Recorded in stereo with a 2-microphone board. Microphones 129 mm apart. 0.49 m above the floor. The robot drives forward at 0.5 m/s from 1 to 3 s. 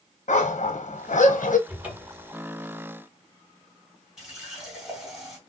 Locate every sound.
0.3 s a dog barking: 70° left (ahead or behind), 1.1 m; by 1.6 s 80° left, 1.0 m
1.7 s a cupboard door: 10° right (ahead or behind), 1.7 m
4.2 s a running tap: 5° right (ahead or behind), 2.5 m